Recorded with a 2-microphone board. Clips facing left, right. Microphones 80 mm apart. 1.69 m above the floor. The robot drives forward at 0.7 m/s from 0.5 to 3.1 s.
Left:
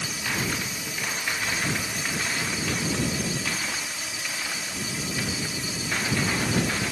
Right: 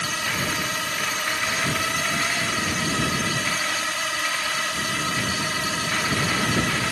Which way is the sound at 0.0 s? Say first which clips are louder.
Right 3 dB; 75° right (ahead or behind).